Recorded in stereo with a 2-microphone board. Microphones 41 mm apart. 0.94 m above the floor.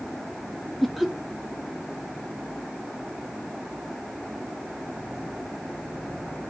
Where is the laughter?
5° left (ahead or behind), 1.0 m.